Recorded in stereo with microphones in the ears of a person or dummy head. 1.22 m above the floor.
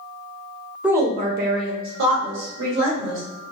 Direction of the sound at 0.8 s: 5° right (ahead or behind).